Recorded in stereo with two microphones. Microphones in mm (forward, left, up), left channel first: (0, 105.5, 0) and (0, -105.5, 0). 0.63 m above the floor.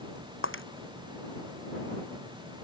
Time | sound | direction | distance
0.4 | breaking glass | 75° left (ahead or behind) | ?